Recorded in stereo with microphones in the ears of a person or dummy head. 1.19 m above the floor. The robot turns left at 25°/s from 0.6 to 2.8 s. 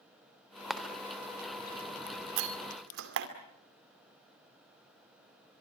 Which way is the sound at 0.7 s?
Centre (ahead or behind).